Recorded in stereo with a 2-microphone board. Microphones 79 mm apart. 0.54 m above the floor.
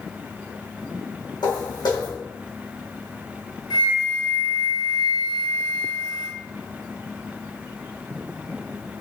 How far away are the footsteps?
About 1.9 m.